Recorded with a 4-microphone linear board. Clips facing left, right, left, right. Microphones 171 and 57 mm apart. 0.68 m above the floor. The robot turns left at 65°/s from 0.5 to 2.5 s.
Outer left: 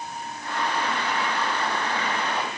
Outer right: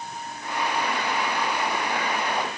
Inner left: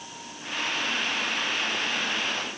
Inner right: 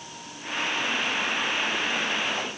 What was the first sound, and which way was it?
Only background noise.